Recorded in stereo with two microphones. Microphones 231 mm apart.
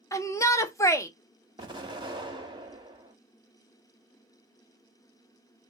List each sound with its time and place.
0.1 s a shout: 15° left (ahead or behind), 0.6 m
1.6 s an explosion: 20° right (ahead or behind), 1.0 m